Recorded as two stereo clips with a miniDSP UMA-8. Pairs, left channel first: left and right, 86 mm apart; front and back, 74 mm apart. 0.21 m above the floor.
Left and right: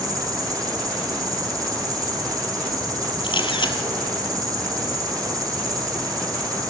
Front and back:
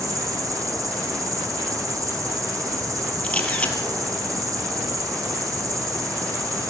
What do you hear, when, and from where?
0.0 s an insect: 135° right, 4 m
3.2 s a camera shutter: 75° left, 2.5 m